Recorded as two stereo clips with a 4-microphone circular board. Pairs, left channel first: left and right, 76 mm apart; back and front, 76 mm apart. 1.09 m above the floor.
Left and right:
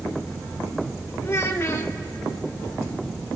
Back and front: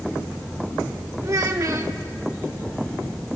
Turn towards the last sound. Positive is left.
turn(degrees=40)